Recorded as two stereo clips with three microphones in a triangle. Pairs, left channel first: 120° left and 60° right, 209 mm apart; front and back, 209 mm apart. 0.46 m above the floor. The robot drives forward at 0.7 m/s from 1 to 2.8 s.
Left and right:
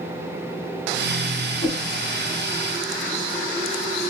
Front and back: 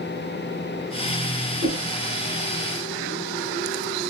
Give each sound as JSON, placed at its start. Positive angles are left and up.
{"t": 1.6, "sound": "a whoosh", "azimuth_deg": -175, "distance_m": 2.5}